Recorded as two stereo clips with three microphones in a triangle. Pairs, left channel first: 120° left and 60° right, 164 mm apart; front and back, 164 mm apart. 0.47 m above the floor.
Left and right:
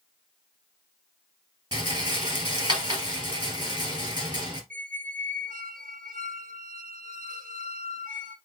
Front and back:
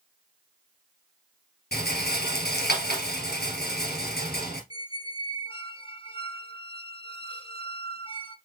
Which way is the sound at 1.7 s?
5° left.